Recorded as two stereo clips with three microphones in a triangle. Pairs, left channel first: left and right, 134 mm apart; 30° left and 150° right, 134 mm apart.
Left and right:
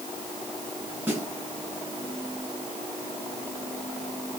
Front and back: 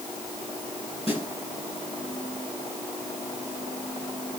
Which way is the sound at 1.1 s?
15° right.